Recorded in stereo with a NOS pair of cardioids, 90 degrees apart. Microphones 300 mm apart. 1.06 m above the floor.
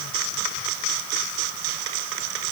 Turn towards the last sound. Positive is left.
No sound to turn to.